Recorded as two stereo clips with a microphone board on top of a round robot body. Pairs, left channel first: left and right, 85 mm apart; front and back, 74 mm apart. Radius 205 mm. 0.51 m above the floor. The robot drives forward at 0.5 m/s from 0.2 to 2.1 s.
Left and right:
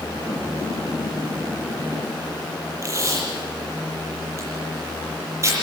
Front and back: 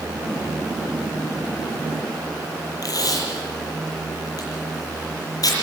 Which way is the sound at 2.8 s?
35° right.